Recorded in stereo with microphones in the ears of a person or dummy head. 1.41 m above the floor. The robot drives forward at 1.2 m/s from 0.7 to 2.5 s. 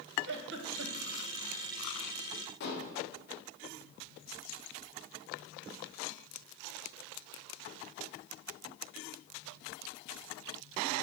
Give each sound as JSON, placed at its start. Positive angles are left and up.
{"t": 0.3, "sound": "a giggle", "side_deg": -65, "distance_m": 0.9}
{"t": 2.6, "sound": "dishes clattering", "side_deg": 60, "distance_m": 1.2}